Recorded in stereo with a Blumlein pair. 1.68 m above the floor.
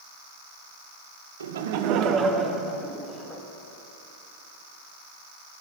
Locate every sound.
1.4 s laughter: 70° right, 0.5 m; by 3.4 s 10° left, 1.1 m